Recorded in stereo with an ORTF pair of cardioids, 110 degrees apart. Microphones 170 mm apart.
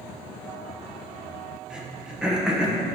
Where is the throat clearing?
5° right, 1.2 m.